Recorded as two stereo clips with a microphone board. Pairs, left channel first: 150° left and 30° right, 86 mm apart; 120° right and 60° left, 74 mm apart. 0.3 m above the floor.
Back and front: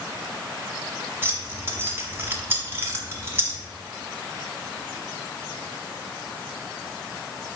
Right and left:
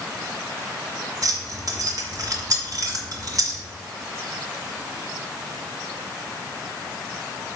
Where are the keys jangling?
30° left, 1.4 m.